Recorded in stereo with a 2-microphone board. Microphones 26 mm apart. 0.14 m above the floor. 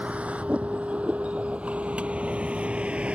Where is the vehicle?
75° right (ahead or behind); by 3.1 s 65° right (ahead or behind).